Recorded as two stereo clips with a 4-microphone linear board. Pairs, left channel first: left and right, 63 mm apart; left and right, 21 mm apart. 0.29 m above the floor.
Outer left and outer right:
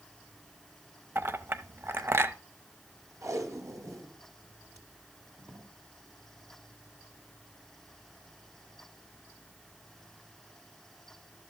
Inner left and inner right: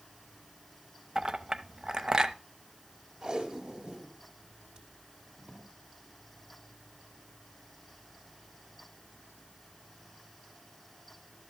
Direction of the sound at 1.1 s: 40° right (ahead or behind).